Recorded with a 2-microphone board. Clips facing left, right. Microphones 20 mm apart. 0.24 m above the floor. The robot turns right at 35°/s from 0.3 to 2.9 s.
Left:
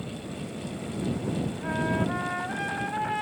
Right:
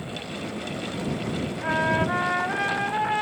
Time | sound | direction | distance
1.6 | a trumpet | 85° right | ?